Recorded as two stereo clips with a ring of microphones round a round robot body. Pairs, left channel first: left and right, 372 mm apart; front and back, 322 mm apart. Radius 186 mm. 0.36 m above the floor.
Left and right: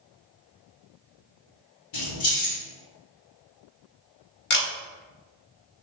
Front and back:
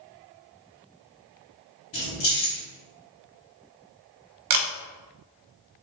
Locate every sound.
1.9 s keys jangling: 45° left, 2.0 m
4.5 s a camera shutter: 155° left, 0.7 m